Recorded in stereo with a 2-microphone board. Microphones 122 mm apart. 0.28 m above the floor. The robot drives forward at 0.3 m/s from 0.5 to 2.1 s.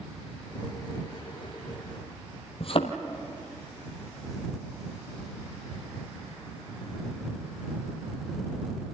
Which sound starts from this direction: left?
A thud, at 2.6 s.